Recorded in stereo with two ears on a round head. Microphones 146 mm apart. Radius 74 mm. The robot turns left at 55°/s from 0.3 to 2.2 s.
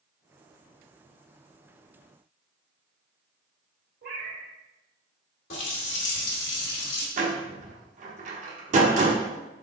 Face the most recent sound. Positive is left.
turn(degrees=-50)  # may be behind; listen again after turning